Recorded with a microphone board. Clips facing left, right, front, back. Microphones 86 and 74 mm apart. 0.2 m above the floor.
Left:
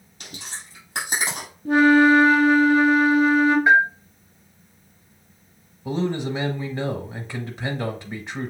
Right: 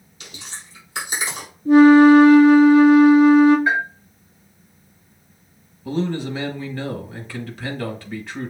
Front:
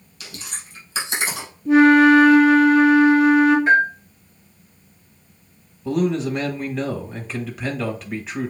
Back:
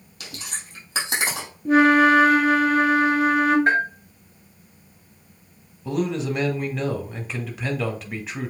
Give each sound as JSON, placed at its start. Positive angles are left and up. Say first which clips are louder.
{"t": 0.2, "sound": "chewing", "louder": "left 1 dB, back 1 dB", "azimuth_deg": 140, "distance_m": 3.0}
{"t": 1.6, "sound": "a flute", "louder": "right 6 dB, front 4 dB", "azimuth_deg": 135, "distance_m": 1.9}
{"t": 3.7, "sound": "a bell", "louder": "left 5 dB, front 4 dB", "azimuth_deg": 155, "distance_m": 3.5}
{"t": 5.8, "sound": "a man speaking", "louder": "right 1 dB, front 4 dB", "azimuth_deg": 85, "distance_m": 1.0}